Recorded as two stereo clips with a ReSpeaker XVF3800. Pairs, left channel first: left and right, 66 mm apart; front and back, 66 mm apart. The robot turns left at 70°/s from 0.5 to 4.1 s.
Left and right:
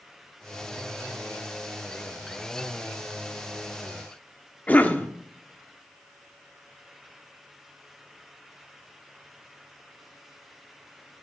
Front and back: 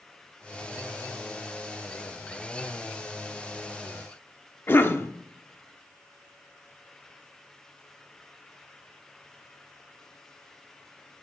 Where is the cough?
35° left, 0.9 m.